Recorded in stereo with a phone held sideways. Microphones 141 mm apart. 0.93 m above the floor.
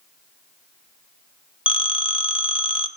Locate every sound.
1.7 s a phone ringing: 35° left (ahead or behind), 0.6 m